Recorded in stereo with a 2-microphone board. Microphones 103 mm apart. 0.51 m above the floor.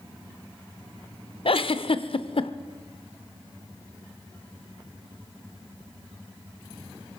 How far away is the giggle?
About 0.6 m.